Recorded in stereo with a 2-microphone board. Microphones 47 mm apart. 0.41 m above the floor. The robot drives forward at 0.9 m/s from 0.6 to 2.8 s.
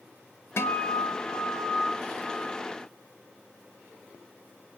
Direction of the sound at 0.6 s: 65° left (ahead or behind).